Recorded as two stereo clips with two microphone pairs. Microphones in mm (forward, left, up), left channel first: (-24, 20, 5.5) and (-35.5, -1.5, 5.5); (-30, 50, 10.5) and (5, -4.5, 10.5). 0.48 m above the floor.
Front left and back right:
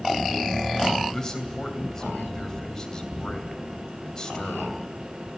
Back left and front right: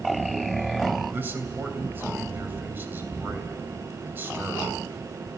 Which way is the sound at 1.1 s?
Straight ahead.